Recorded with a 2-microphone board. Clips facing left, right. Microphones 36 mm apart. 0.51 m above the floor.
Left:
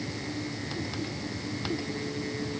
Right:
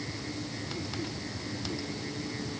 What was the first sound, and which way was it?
Only background noise.